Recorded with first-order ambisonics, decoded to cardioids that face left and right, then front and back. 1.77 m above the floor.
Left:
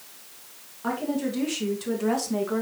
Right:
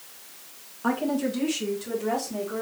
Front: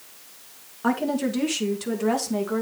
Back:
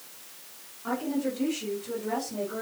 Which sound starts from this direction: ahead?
A woman speaking, at 0.8 s.